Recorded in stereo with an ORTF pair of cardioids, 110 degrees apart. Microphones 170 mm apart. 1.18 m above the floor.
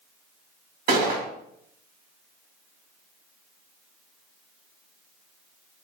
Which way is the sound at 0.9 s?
70° right.